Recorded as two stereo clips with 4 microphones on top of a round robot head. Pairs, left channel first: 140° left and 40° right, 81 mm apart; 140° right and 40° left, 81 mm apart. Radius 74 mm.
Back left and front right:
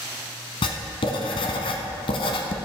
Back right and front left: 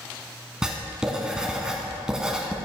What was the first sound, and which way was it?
Writing, 120° left.